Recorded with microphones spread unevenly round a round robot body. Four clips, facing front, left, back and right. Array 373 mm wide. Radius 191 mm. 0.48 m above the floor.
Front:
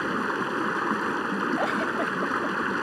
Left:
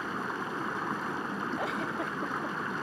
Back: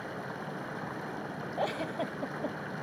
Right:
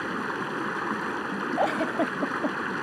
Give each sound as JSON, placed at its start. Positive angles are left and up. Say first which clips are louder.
{"t": 0.0, "sound": "running water", "louder": "right 4 dB, front 12 dB", "azimuth_deg": -15}
{"t": 1.6, "sound": "a giggle", "louder": "right 8 dB, front 7 dB", "azimuth_deg": -75}